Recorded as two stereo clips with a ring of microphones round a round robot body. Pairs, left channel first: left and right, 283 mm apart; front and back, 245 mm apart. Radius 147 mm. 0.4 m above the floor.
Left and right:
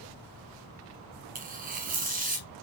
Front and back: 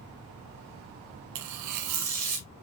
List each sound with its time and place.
1.4 s tearing paper: 155° right, 1.3 m